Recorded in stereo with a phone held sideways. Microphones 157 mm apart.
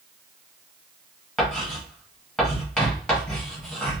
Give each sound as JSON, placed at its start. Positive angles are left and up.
{"t": 1.4, "sound": "writing", "side_deg": 0, "distance_m": 1.7}